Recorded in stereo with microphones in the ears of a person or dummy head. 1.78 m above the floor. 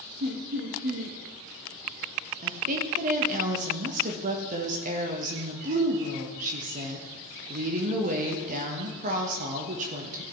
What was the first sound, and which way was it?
Laughter, 50° right (ahead or behind).